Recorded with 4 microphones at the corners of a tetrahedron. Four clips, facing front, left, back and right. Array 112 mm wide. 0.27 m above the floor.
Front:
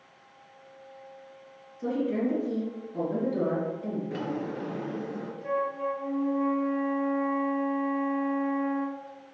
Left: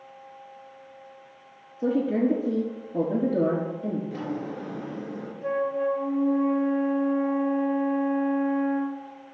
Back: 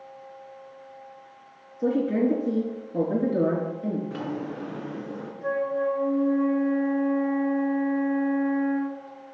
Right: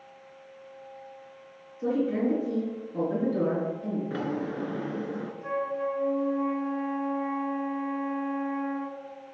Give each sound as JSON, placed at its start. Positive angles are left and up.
{"t": 1.8, "sound": "a woman speaking", "azimuth_deg": 165, "distance_m": 4.5}
{"t": 4.1, "sound": "a drawer", "azimuth_deg": -85, "distance_m": 2.5}
{"t": 5.4, "sound": "a flute", "azimuth_deg": 160, "distance_m": 3.0}